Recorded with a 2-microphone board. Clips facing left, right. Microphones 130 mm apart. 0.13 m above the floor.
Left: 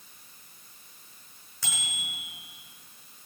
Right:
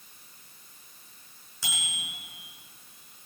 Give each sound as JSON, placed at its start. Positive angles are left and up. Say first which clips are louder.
{"t": 1.6, "sound": "a bicycle bell", "louder": "even", "side_deg": -5, "distance_m": 6.5}